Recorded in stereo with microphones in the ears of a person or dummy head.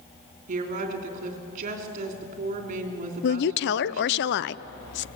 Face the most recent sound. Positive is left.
turn(degrees=50)  # may be behind; listen again after turning